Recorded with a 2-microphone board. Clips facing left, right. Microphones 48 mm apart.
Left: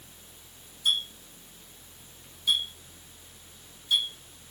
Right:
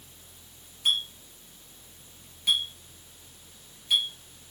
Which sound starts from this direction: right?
A clink, at 0.8 s.